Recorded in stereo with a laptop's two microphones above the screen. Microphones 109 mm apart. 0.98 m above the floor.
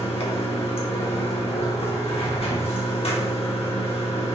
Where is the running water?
65° left (ahead or behind), 1.0 m.